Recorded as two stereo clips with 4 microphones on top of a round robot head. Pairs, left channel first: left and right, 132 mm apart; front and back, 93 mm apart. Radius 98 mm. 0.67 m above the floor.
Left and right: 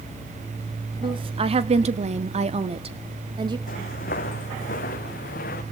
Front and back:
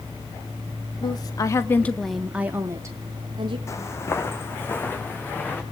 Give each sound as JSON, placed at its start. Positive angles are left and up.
{"t": 1.0, "sound": "a woman speaking", "azimuth_deg": -40, "distance_m": 1.7}
{"t": 3.7, "sound": "footsteps", "azimuth_deg": 55, "distance_m": 2.5}